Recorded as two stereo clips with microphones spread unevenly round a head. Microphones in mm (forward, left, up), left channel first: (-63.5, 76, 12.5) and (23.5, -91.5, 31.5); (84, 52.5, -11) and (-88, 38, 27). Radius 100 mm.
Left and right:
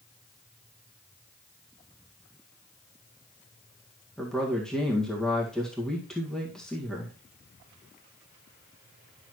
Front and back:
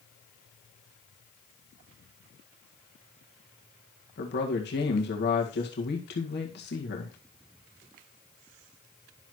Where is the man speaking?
30° left, 2.0 m.